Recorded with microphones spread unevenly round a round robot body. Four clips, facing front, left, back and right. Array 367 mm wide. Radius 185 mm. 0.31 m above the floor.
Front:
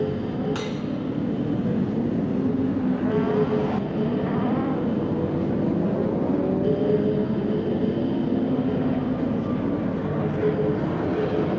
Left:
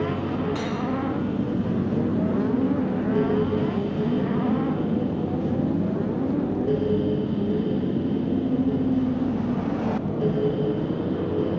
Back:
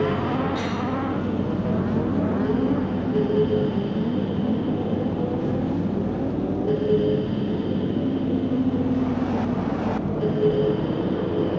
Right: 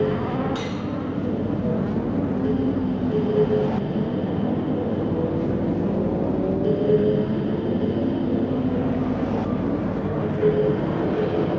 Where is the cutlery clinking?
5° left, 2.5 m.